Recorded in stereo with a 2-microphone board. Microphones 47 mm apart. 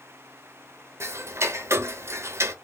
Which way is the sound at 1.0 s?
60° right (ahead or behind).